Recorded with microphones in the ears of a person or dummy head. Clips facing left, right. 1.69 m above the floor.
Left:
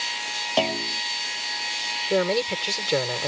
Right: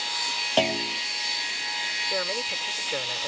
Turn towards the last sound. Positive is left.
turn(degrees=60)  # may be behind; listen again after turning